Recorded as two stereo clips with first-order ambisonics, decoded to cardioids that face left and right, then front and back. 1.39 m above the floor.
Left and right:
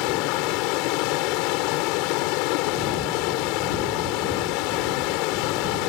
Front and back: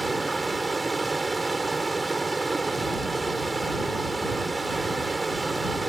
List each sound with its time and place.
0.0 s running water: 100° left